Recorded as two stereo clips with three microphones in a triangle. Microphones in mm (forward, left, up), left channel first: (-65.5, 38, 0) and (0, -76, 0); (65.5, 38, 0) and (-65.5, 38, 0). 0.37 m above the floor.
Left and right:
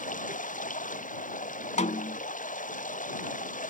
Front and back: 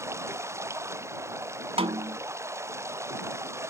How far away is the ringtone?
I don't hear a ringtone.